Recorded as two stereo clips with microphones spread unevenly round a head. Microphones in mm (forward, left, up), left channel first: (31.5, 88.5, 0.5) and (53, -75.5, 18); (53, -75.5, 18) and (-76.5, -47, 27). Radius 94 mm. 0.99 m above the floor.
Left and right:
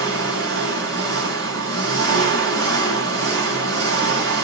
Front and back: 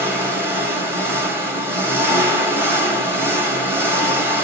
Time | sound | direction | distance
0.0 | an engine running | 120° right | 4 m